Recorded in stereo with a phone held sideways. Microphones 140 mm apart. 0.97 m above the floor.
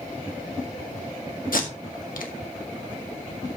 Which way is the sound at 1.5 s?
75° left (ahead or behind).